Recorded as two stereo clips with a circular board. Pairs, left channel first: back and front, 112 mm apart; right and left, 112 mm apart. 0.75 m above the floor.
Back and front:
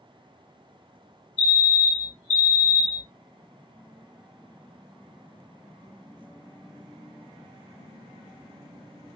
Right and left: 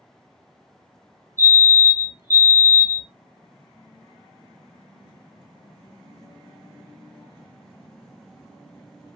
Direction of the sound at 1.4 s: 145° right.